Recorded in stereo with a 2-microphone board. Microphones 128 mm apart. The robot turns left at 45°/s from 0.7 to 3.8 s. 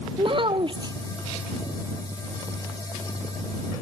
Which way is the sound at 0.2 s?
40° right (ahead or behind).